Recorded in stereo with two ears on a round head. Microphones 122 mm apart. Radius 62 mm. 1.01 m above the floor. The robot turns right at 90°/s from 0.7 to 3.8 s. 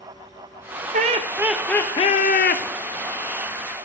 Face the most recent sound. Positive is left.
turn(degrees=-160)